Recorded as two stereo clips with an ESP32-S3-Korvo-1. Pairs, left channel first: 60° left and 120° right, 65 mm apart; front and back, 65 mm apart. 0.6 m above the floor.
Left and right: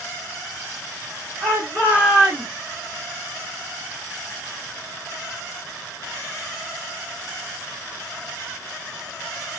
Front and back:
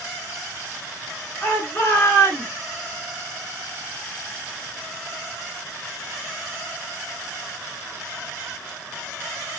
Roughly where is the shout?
Ahead right.